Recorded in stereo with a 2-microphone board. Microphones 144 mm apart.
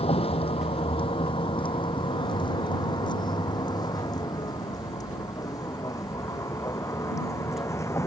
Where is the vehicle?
45° left (ahead or behind); by 8.1 s 20° left (ahead or behind).